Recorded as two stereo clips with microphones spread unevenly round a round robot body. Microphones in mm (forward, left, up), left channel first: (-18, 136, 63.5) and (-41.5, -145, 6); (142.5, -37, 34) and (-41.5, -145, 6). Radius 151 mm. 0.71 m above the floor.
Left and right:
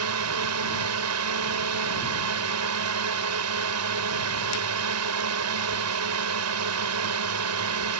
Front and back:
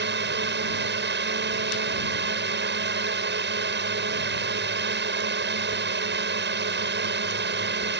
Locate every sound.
0.0 s a drone: 120° right